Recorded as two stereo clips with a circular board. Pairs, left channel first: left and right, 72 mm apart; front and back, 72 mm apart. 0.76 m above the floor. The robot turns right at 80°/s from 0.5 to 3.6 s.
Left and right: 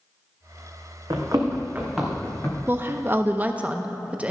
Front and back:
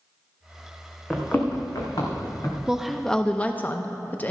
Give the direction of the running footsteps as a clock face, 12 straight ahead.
3 o'clock.